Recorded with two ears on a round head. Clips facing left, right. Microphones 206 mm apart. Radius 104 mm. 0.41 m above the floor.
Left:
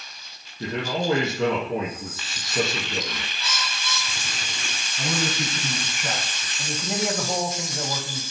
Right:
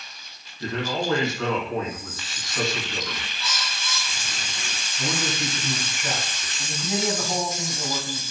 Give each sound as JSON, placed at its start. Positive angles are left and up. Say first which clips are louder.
{"t": 0.6, "sound": "a man speaking", "louder": "left 1 dB", "side_deg": 25, "distance_m": 4.5}
{"t": 3.4, "sound": "a bird", "louder": "left 1 dB", "side_deg": 35, "distance_m": 4.5}
{"t": 5.0, "sound": "a man speaking", "louder": "left 1 dB", "side_deg": 35, "distance_m": 4.0}
{"t": 6.6, "sound": "a man speaking", "louder": "even", "side_deg": 50, "distance_m": 1.8}